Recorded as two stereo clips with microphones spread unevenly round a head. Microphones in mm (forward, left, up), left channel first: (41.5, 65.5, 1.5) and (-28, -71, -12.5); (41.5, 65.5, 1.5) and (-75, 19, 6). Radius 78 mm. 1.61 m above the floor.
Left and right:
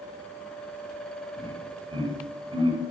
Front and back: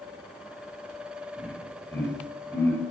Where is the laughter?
55° right, 9 m.